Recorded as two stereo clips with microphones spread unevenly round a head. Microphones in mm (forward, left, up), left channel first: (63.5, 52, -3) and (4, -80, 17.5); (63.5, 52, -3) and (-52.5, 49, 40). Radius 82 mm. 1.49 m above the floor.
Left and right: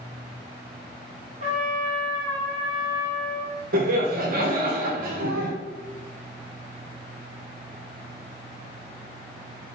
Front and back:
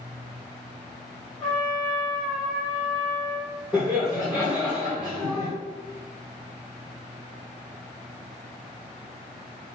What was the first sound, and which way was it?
A trumpet, 90° right.